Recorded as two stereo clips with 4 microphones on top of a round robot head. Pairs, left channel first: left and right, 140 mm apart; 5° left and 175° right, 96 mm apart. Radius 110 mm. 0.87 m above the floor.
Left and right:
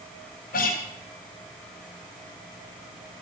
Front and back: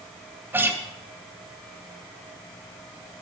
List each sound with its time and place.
0.5 s a guitar: 115° left, 3 m